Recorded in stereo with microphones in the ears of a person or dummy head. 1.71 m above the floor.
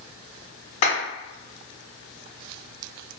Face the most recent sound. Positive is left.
turn(degrees=55)  # may be behind; listen again after turning